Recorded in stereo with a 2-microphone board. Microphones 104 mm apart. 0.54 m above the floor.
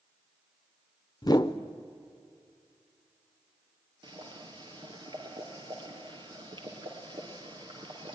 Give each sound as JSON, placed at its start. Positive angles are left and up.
{"t": 1.2, "sound": "a whoosh", "side_deg": 40, "distance_m": 0.7}
{"t": 4.0, "sound": "boiling", "side_deg": -50, "distance_m": 3.0}